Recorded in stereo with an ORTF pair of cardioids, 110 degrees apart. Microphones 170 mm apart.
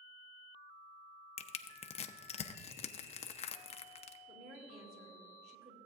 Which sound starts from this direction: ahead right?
A woman speaking, at 4.3 s.